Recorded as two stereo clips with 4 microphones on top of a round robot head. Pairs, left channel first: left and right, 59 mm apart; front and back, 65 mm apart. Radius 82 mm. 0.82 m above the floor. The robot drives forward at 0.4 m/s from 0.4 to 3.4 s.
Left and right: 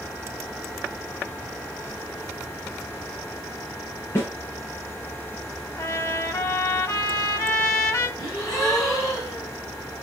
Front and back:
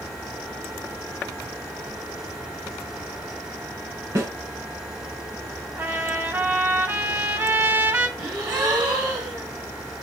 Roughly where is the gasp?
Behind.